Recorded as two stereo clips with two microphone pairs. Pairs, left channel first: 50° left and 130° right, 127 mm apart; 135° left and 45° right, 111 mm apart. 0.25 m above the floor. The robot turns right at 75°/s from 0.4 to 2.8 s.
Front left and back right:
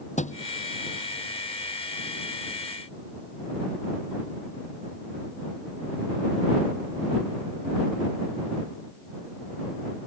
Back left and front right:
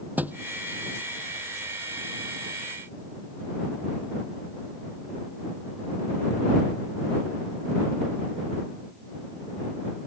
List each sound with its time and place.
0.2 s a thud: 30° left